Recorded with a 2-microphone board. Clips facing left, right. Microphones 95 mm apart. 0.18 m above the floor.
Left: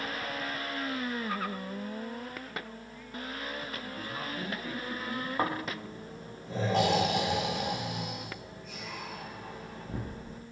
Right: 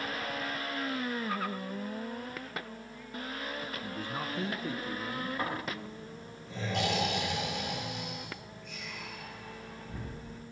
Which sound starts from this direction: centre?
A man speaking, at 3.8 s.